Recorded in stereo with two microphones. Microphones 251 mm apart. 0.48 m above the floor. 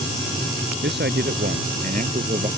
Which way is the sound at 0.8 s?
45° right (ahead or behind).